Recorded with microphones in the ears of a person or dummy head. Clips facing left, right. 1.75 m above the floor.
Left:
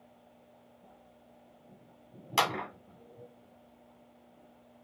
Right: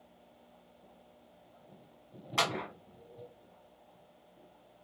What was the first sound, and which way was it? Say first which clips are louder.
A clap: left 2 dB; 40° left (ahead or behind).